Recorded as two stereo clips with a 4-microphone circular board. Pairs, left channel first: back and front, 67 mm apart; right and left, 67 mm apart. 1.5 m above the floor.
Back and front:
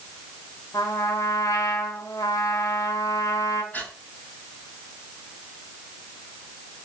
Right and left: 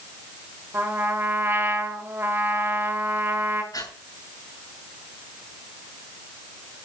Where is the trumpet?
145° left, 3 m.